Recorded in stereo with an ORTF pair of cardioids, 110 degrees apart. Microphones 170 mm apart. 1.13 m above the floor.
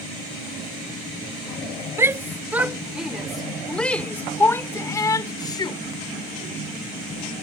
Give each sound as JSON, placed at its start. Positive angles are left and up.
{"t": 2.0, "sound": "a shout", "azimuth_deg": -15}